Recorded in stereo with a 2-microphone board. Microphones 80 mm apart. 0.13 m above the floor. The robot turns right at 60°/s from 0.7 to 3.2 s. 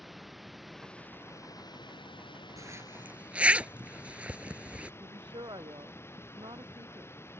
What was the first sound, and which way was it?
Running water, straight ahead.